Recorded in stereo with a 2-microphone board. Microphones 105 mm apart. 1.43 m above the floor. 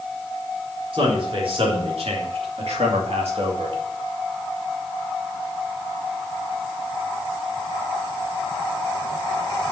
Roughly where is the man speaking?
Right.